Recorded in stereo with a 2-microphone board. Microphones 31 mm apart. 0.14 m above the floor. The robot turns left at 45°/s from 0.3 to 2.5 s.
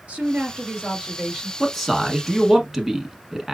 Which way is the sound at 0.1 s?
120° right.